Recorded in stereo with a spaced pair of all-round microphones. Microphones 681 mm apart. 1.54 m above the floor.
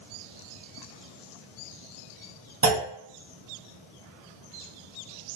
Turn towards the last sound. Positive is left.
turn(degrees=-25)  # may be behind; listen again after turning